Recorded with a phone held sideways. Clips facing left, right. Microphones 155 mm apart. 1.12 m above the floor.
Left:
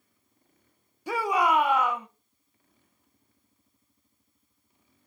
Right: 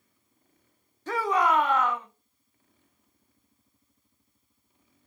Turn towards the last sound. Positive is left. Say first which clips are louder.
# even
turn(degrees=10)  # may be behind; listen again after turning